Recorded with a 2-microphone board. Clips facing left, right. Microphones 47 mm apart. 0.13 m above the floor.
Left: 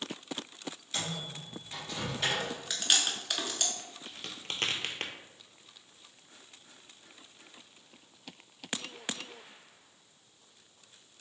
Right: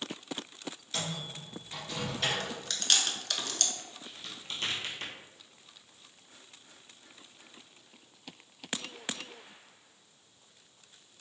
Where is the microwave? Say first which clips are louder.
Even; 5° left (ahead or behind), 1.7 m.